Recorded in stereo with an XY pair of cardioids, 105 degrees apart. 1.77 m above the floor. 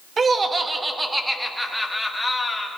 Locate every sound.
0.2 s laughter: 35° right, 1.0 m; by 2.7 s 15° left, 1.9 m